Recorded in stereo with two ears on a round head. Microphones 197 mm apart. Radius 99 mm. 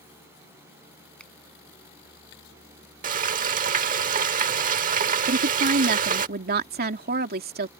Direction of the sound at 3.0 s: 40° right (ahead or behind).